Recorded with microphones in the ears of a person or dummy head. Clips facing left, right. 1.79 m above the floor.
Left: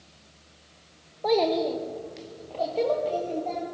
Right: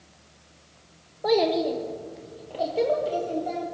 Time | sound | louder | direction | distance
1.2 | a child speaking | right 1 dB | 10° right (ahead or behind) | 1.0 m